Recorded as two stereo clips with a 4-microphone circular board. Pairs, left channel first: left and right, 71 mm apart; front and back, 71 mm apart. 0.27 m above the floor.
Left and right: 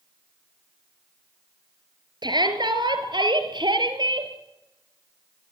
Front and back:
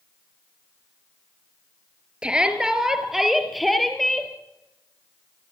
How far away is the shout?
About 4.5 m.